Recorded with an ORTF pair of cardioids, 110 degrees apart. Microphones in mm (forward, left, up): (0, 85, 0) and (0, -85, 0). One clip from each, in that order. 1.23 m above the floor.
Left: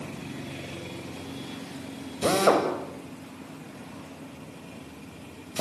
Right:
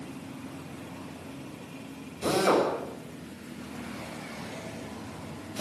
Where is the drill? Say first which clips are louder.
Left 3 dB; 45° left, 8 m.